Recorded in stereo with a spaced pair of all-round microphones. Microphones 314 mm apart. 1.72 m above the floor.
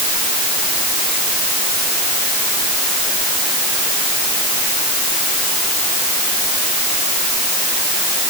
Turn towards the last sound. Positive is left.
No sound to turn to.